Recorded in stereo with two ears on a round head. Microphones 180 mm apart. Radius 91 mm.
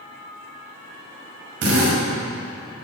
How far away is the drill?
About 5 m.